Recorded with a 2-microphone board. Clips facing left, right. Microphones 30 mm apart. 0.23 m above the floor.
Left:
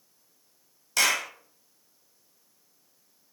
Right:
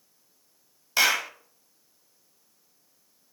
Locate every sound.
1.0 s a clap: 20° right (ahead or behind), 0.7 m